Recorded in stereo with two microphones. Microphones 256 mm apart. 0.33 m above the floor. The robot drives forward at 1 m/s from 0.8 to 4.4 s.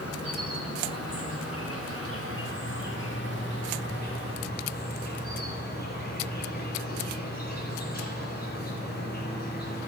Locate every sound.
0.0 s an insect: 75° left (ahead or behind), 3 m; by 9.9 s 40° left (ahead or behind), 4.5 m